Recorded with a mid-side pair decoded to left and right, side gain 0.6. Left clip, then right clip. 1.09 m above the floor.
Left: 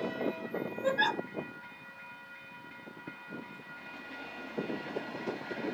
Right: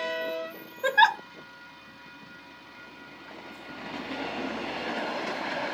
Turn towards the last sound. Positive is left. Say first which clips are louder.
# right 9 dB
turn(degrees=-70)